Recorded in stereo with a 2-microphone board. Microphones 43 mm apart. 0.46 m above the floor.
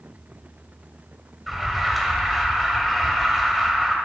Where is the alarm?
Centre (ahead or behind), 1.7 m.